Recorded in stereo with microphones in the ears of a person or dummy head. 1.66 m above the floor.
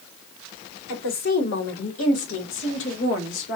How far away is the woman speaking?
About 1.6 m.